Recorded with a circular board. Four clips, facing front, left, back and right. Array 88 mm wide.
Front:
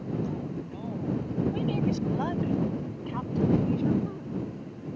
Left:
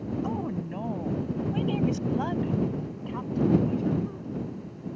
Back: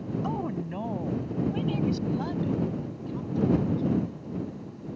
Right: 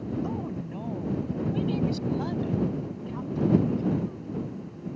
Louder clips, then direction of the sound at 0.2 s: Left 2 dB, back 3 dB; 165° left.